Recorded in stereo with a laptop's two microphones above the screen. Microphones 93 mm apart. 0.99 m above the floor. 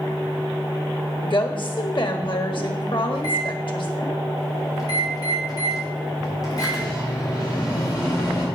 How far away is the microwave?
About 2 m.